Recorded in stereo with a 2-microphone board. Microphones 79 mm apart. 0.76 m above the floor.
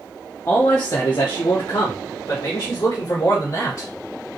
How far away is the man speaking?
About 0.9 m.